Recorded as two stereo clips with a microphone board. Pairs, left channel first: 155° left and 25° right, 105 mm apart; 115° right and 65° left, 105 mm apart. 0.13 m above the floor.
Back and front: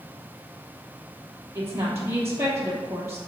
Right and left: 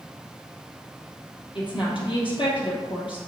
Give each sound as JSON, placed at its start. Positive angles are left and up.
{"t": 1.6, "sound": "a woman speaking", "azimuth_deg": -85, "distance_m": 2.5}